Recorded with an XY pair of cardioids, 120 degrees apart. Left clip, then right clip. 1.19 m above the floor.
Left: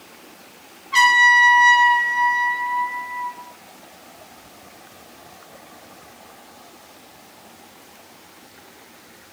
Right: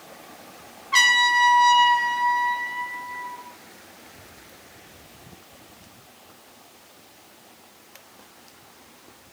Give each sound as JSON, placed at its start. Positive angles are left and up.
{"t": 0.9, "sound": "a trumpet", "azimuth_deg": -20, "distance_m": 0.8}